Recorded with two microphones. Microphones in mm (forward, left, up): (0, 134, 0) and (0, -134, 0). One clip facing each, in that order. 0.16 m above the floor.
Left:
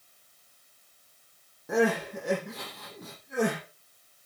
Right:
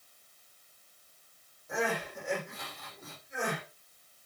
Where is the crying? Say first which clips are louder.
Left 9 dB; 70° left (ahead or behind), 8 m.